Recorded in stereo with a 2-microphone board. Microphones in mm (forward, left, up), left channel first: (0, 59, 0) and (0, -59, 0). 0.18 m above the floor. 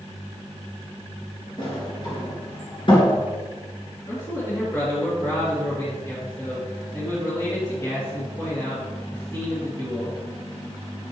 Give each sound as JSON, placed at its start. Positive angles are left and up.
{"t": 1.6, "sound": "a sliding door", "side_deg": 40, "distance_m": 2.5}
{"t": 4.1, "sound": "a man speaking", "side_deg": 30, "distance_m": 2.5}